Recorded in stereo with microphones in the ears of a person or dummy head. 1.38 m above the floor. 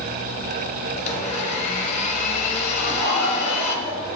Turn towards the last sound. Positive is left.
turn(degrees=-65)  # may be behind; listen again after turning